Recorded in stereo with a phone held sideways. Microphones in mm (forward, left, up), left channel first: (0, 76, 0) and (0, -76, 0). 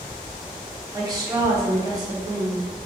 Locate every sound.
0.9 s a woman speaking: 25° right (ahead or behind), 0.9 m